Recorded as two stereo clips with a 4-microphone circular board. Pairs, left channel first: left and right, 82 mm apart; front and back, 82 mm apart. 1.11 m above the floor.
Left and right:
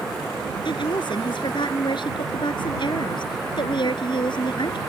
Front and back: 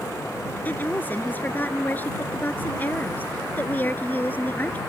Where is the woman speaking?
65° left.